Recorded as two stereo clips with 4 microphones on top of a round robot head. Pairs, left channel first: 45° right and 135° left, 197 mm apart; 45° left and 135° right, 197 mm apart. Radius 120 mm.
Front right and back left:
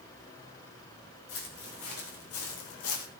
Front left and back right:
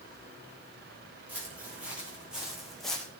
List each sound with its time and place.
1.3 s footsteps: 55° right, 5 m; by 3.1 s 40° right, 2 m